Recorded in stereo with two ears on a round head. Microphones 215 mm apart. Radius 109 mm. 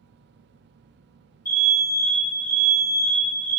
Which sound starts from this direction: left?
An alarm, at 1.4 s.